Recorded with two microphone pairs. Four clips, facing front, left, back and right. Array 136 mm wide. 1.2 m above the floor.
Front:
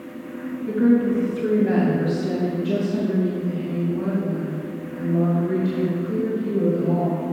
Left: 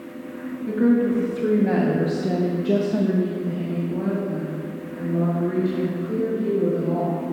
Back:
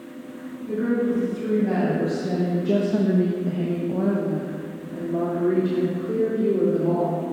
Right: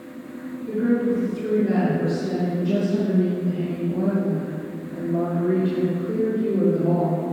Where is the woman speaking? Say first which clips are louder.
Left 2 dB, front 5 dB; 70° left, 1.9 m; by 7.2 s 155° right, 3.5 m.